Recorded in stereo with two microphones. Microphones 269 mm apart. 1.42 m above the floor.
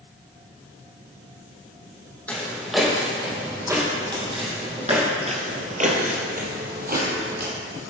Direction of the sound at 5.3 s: 25° right (ahead or behind).